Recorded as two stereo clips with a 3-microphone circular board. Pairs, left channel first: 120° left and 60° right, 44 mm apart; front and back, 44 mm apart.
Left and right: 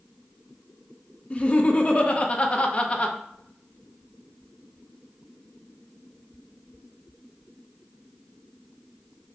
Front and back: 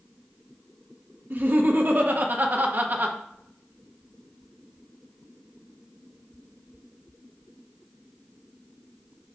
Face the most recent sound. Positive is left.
turn(degrees=170)